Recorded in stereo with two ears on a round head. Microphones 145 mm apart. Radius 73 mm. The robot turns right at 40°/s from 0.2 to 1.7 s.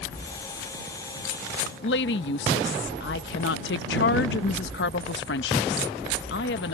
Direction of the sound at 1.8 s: 75° left (ahead or behind).